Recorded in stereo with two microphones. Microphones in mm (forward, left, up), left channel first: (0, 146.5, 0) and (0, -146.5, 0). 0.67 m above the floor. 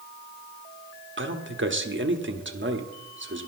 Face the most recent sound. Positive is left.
turn(degrees=-45)  # may be behind; listen again after turning